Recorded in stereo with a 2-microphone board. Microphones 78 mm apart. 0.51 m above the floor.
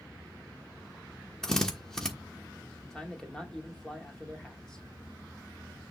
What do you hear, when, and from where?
1.4 s a drill: 5° left (ahead or behind), 1.3 m
2.8 s a man speaking: 10° left (ahead or behind), 1.2 m